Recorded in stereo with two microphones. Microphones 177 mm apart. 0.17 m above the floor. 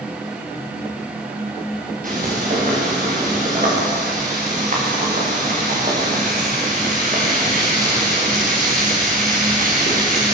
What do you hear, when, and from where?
2.0 s frying: 50° right (ahead or behind), 9.5 m